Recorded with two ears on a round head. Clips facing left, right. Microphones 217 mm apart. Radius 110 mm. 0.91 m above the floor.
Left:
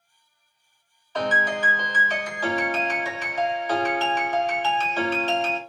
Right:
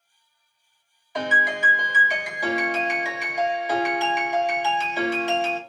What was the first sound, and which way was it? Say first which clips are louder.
A piano: left 2 dB; 10° right (ahead or behind).